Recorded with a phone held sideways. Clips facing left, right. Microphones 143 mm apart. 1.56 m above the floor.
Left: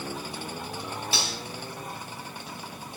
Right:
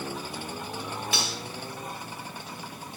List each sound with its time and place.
1.1 s cutlery clinking: 30° left (ahead or behind), 4 m